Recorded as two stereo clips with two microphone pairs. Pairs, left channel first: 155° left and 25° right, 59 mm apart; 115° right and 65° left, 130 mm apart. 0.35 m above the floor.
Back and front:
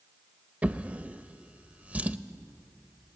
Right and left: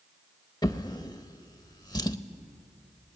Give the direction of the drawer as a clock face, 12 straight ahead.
3 o'clock.